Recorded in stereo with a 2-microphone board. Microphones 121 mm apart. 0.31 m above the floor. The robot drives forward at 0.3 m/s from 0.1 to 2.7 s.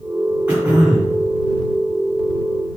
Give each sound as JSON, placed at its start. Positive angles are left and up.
{"t": 0.5, "sound": "throat clearing", "side_deg": -10, "distance_m": 2.0}